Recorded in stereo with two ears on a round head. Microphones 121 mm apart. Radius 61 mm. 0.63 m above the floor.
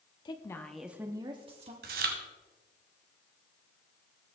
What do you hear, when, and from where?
0.2 s a woman speaking: 30° left (ahead or behind), 1.0 m; by 1.7 s 50° right (ahead or behind), 1.3 m
1.8 s chewing: 70° right (ahead or behind), 1.6 m